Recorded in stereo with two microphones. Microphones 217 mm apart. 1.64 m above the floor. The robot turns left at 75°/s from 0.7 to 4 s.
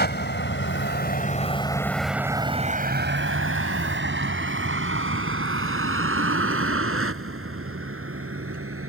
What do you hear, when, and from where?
0.0 s a vehicle: 50° left (ahead or behind); by 8.9 s 85° right